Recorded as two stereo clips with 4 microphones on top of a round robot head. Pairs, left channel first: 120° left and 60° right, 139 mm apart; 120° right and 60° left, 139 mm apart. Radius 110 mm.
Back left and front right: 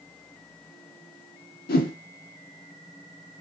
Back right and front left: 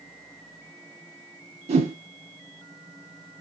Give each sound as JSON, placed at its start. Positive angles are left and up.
{"t": 1.7, "sound": "a whoosh", "azimuth_deg": 105, "distance_m": 0.7}